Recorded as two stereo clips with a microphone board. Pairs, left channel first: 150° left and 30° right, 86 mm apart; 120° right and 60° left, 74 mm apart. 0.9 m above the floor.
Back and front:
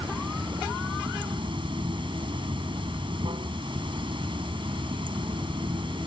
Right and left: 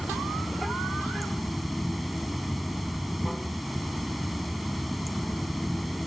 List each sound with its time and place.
0.0 s running water: 30° right